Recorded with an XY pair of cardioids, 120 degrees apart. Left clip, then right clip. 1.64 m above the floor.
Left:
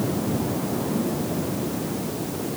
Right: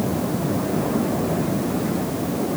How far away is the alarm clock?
I don't hear an alarm clock.